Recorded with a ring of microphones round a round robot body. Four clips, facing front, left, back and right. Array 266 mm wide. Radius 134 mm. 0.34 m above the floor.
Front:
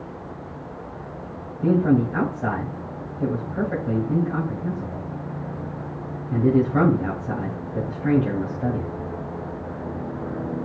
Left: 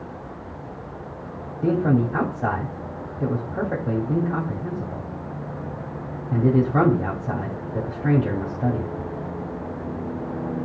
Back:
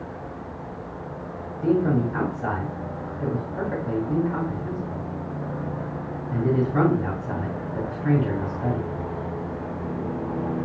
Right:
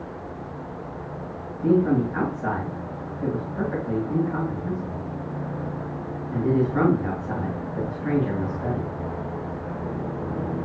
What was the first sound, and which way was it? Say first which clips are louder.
A man speaking: right 1 dB, front 2 dB; 80° left.